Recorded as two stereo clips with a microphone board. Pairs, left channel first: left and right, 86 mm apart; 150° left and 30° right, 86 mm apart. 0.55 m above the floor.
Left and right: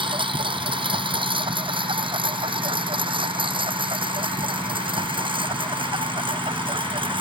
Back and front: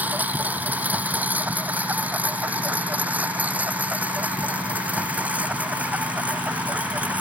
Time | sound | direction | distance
0.0 | a lawn mower | 100° right | ?